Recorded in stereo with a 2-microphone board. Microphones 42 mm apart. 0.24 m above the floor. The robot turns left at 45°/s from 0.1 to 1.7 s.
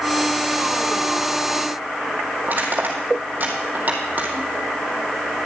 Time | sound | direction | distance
2.4 | crushing | 45° right (ahead or behind) | 2 m